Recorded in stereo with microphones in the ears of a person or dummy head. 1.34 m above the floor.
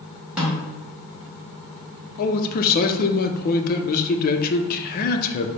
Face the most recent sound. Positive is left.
turn(degrees=50)  # may be behind; listen again after turning